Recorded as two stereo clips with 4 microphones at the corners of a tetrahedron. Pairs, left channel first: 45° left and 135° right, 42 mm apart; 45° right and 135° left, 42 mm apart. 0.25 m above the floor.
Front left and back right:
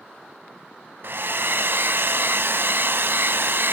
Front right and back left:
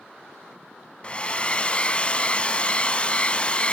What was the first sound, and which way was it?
A hair dryer, 105° right.